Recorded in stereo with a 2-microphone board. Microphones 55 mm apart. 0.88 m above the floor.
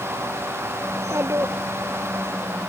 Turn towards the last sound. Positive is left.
turn(degrees=-60)  # may be behind; listen again after turning